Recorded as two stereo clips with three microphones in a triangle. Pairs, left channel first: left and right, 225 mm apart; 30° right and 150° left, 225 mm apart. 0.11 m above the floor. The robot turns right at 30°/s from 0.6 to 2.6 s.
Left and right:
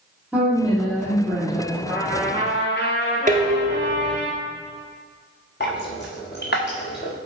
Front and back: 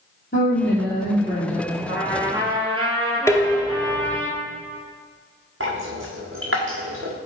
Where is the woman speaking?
Straight ahead, 2.5 m; by 1.8 s 35° left, 2.5 m.